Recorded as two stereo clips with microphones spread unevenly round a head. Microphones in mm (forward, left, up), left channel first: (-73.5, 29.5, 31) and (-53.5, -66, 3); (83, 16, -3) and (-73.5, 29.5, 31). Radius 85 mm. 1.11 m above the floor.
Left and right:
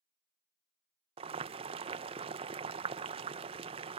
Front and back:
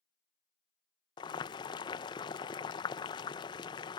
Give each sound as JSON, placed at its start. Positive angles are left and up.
{"t": 1.2, "sound": "boiling", "azimuth_deg": -65}